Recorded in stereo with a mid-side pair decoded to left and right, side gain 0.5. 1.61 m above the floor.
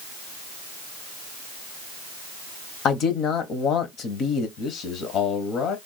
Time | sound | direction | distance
2.9 | a man speaking | 65° left | 1.1 m
4.6 | a man speaking | 65° left | 1.1 m